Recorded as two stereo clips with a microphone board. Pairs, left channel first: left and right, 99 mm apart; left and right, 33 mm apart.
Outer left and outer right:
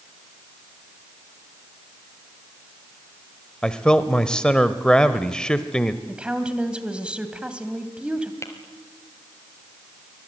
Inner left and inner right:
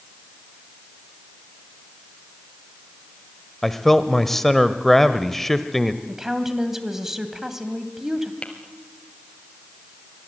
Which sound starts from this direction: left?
Tapping, at 8.4 s.